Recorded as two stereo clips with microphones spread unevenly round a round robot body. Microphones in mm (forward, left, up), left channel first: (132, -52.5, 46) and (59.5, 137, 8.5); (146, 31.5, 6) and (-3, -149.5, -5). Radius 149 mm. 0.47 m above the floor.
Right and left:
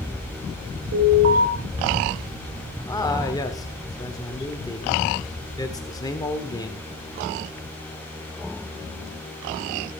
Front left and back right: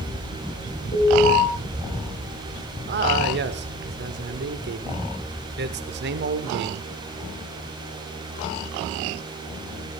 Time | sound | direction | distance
0.9 | an alarm | 120° left | 4.5 m
2.9 | a man speaking | 150° right | 1.3 m